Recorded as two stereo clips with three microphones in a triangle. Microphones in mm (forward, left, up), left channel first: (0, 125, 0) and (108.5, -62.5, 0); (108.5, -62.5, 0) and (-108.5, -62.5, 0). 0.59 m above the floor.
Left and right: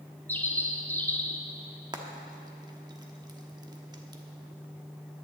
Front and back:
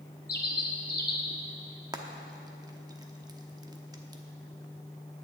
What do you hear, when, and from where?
0.3 s a bird: 40° left, 1.4 m
1.9 s frying: 120° right, 1.0 m